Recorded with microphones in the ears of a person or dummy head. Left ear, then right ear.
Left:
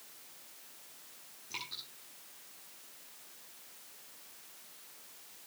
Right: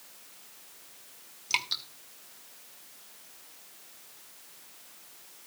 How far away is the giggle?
No giggle in this recording.